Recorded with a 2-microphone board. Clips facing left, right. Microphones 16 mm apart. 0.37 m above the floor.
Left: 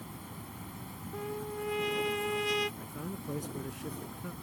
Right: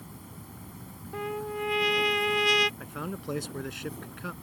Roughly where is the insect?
Left.